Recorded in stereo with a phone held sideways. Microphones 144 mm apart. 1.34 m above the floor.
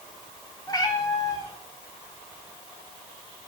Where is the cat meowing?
30° left (ahead or behind), 1.2 m.